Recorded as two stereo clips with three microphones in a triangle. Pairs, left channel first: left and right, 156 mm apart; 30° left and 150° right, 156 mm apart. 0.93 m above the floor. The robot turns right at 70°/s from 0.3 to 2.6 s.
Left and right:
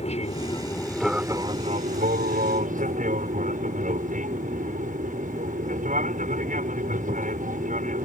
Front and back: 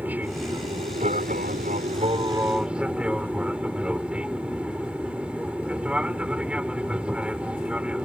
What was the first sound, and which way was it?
An aircraft, 130° left.